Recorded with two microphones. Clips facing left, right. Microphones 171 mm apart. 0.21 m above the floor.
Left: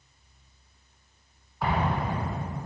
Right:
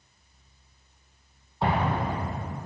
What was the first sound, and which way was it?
An explosion, 30° right (ahead or behind).